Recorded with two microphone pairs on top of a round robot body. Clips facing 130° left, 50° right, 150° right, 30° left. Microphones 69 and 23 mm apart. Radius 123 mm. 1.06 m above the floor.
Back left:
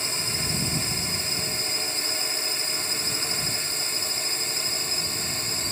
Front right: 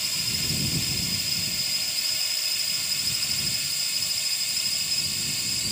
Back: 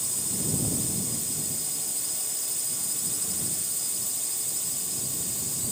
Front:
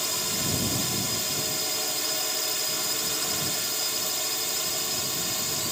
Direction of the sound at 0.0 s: 70° left.